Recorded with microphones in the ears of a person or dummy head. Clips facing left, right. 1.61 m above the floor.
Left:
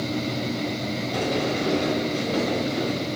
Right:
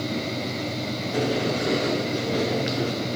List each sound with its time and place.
1.1 s a sliding door: 10° right (ahead or behind), 2 m